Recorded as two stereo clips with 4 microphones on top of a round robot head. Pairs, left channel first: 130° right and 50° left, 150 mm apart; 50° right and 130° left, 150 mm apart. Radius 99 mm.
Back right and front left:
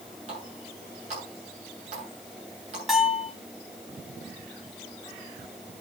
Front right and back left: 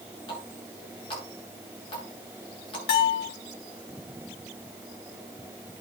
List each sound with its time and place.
0.3 s a running tap: 5° left, 7.5 m
2.9 s a bell: 40° right, 3.5 m